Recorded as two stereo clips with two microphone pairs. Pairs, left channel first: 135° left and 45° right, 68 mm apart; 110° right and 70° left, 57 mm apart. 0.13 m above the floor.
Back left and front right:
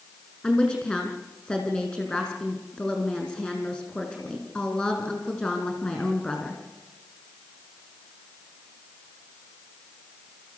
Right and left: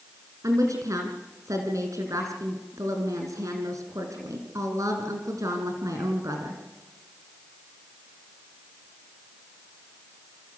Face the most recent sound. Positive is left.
turn(degrees=65)